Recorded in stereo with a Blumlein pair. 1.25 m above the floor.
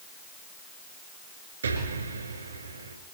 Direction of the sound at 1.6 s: 70° right.